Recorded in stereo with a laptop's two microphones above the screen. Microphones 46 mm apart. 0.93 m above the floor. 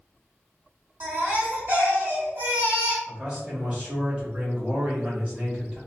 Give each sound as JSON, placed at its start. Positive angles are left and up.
{"t": 1.0, "sound": "a baby crying", "side_deg": -55, "distance_m": 1.4}
{"t": 3.1, "sound": "a man speaking", "side_deg": -30, "distance_m": 1.1}